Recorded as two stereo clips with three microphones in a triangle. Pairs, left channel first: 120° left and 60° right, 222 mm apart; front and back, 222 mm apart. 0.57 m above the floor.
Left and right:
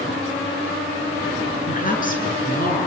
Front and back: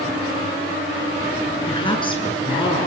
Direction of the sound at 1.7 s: 70° left.